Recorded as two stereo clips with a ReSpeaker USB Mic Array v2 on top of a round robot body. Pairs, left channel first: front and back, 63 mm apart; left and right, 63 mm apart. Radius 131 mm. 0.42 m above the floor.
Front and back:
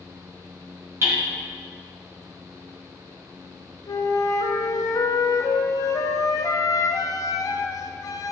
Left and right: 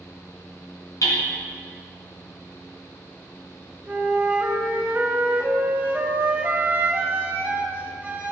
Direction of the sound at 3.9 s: 20° right.